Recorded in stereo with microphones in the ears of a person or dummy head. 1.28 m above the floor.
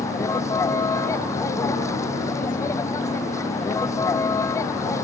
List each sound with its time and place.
0.0 s a vehicle: 15° left (ahead or behind)